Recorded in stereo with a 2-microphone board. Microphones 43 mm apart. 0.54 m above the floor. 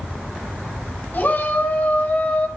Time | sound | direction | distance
1.1 | a shout | 45° left (ahead or behind) | 4.5 m